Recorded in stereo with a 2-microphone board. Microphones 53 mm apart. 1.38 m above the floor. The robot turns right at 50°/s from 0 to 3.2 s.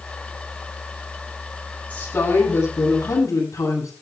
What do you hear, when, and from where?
1.9 s a woman speaking: 30° left, 10 m; by 3.9 s 95° left, 10 m